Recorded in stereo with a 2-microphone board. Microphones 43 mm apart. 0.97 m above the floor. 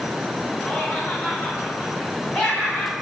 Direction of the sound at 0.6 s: 10° left (ahead or behind).